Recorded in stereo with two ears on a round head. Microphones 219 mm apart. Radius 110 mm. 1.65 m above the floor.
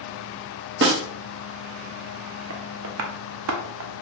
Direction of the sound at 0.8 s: 45° right (ahead or behind).